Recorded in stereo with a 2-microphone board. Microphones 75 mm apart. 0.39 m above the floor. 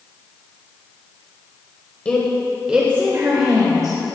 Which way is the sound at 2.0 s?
20° left (ahead or behind).